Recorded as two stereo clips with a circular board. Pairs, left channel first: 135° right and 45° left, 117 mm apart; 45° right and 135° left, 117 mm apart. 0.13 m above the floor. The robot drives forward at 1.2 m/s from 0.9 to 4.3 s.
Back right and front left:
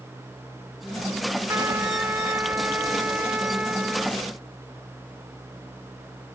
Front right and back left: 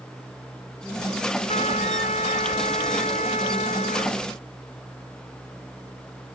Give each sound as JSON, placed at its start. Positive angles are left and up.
{"t": 1.5, "sound": "a trumpet", "azimuth_deg": -25}